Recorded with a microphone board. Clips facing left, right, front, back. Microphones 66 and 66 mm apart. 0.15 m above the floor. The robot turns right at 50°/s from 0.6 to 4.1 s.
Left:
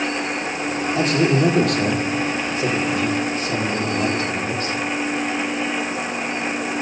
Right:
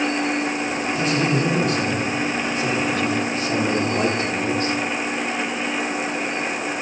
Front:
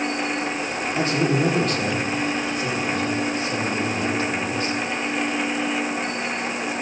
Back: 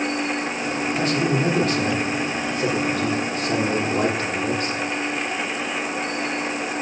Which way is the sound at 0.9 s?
50° left.